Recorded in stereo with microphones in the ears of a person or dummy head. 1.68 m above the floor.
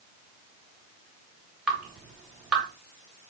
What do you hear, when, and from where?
1.7 s dripping: centre (ahead or behind), 1.6 m